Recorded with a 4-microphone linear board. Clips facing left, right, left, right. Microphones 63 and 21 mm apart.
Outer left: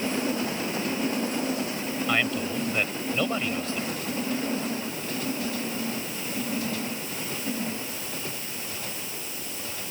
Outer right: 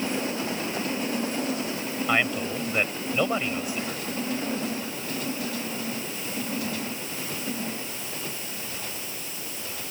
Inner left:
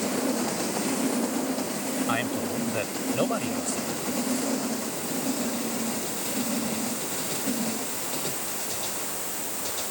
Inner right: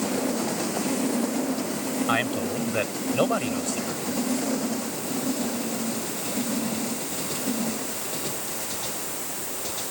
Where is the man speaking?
15° right (ahead or behind).